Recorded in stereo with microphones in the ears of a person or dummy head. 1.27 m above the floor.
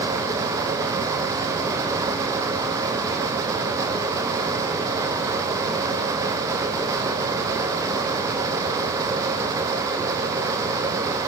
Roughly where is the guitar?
No guitar in this recording.